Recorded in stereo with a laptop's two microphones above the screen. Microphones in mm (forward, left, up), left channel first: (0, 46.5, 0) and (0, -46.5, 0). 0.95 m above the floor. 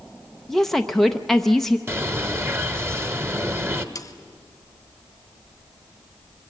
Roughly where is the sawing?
Left.